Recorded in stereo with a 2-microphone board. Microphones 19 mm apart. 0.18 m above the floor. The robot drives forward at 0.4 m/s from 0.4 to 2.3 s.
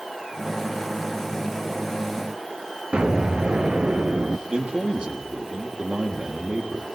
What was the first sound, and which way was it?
An explosion, 75° right (ahead or behind).